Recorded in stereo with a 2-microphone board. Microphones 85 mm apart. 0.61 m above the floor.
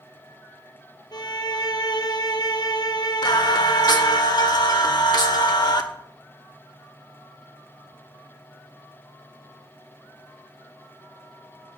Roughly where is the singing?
Left.